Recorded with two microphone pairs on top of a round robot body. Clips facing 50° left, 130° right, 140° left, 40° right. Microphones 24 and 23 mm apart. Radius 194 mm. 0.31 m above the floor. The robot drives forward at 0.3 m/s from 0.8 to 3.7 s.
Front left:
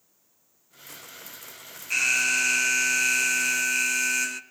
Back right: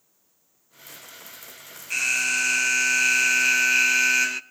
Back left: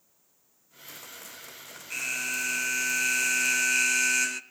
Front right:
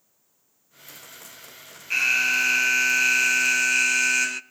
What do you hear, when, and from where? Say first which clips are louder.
1.9 s an alarm: even, front right 10 dB; 35° right, 0.9 m; by 4.4 s 105° right, 0.8 m